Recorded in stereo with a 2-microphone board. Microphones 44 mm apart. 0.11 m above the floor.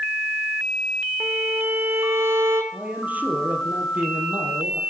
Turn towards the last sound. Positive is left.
turn(degrees=-40)  # may be behind; listen again after turning